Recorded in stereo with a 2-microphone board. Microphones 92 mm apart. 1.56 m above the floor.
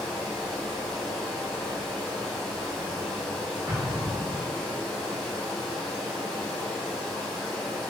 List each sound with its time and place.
0.0 s running water: 5° left (ahead or behind), 1.0 m
3.7 s an explosion: 25° right (ahead or behind), 1.3 m